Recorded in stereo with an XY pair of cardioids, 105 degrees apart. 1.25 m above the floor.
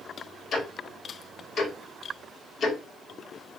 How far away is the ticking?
About 1.3 m.